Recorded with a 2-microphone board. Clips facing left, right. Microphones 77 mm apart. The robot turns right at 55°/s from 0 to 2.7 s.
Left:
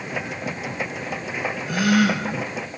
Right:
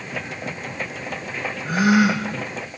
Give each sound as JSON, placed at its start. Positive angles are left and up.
{"t": 1.6, "sound": "a gasp", "azimuth_deg": -45, "distance_m": 6.5}